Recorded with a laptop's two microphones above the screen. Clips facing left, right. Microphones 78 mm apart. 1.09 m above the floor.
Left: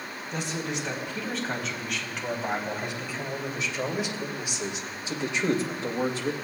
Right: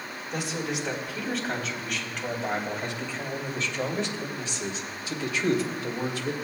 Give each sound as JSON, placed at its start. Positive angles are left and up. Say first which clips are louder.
{"t": 0.3, "sound": "a man speaking", "louder": "right 1 dB", "side_deg": -5, "distance_m": 4.0}